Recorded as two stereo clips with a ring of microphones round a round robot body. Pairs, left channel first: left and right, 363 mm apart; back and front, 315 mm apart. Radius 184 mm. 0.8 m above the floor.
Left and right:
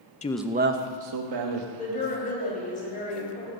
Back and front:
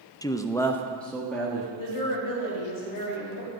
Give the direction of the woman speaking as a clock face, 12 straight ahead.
7 o'clock.